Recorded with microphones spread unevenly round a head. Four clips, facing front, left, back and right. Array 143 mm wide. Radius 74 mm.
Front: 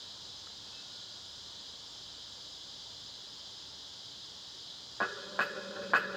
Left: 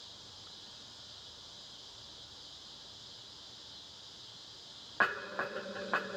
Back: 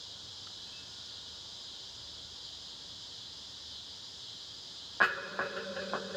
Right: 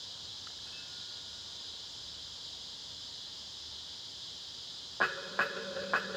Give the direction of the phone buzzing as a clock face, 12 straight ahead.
I don't hear a phone buzzing.